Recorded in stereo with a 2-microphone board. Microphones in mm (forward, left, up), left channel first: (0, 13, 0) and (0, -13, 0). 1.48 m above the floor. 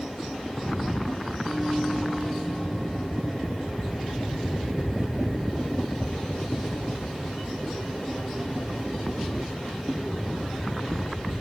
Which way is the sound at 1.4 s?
5° left (ahead or behind).